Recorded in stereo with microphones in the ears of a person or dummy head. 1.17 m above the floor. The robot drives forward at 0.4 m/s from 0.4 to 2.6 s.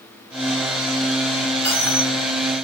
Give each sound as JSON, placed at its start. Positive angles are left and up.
{"t": 1.6, "sound": "a dropped coin", "side_deg": 10, "distance_m": 1.6}